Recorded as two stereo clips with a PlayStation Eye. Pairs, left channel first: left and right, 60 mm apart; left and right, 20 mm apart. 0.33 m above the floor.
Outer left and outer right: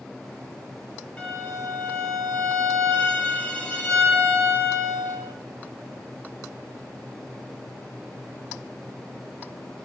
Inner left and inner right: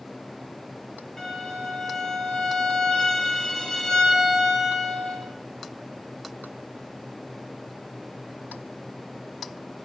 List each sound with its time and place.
1.2 s a violin: 20° left (ahead or behind), 0.8 m